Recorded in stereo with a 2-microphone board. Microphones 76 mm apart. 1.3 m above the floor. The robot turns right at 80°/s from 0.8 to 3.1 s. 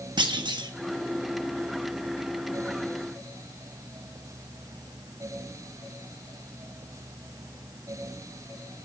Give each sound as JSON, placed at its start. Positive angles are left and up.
{"t": 0.2, "sound": "a clunk", "side_deg": -75, "distance_m": 1.2}